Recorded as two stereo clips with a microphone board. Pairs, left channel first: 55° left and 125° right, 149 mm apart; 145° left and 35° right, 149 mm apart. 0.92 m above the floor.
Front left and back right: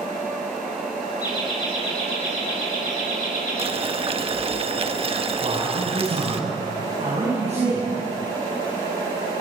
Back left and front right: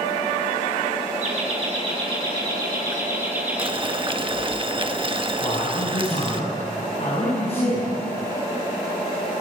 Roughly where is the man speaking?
Behind.